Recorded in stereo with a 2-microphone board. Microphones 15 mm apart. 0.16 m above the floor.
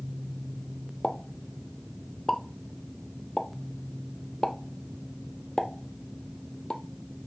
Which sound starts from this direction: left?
A pop, at 1.0 s.